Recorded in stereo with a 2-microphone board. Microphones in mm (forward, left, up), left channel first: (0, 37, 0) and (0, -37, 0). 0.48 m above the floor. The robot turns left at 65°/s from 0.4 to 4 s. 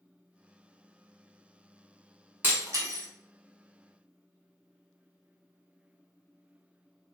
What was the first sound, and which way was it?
Breaking glass, 25° right (ahead or behind).